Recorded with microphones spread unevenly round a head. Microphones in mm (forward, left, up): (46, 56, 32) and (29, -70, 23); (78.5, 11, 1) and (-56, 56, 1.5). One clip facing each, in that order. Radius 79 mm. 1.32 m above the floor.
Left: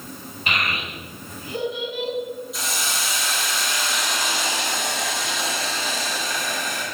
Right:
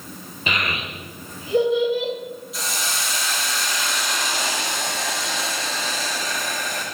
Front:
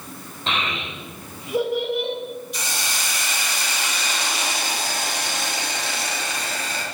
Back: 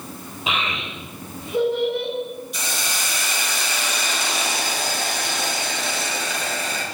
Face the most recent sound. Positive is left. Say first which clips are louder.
# even, back 1 dB
turn(degrees=170)